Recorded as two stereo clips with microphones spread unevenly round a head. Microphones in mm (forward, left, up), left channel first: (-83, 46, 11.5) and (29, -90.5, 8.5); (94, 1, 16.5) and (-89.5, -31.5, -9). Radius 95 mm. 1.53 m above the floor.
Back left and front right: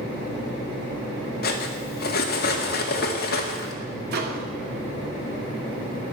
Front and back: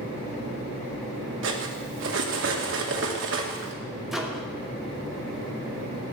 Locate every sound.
1.4 s cutlery clinking: 160° left, 2 m
4.1 s a microwave: 80° right, 2.5 m